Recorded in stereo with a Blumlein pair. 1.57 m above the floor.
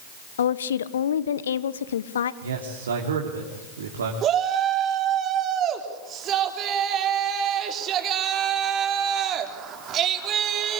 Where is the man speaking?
65° right, 3 m.